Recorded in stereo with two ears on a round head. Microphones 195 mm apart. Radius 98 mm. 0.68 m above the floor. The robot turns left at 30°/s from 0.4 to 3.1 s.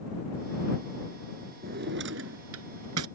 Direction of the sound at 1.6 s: 45° right (ahead or behind).